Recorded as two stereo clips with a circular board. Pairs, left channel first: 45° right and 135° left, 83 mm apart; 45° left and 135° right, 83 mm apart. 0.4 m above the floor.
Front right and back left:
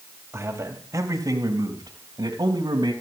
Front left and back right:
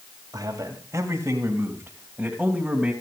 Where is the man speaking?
170° right, 2.5 m; by 2.9 s 140° left, 3 m.